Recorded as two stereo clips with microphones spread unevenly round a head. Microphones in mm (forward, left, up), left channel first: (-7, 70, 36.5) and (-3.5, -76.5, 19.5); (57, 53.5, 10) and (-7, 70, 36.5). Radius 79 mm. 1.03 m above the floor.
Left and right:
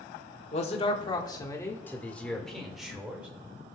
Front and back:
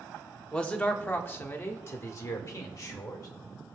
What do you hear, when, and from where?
0.5 s a man speaking: 50° left, 1.5 m; by 3.3 s 10° right, 2 m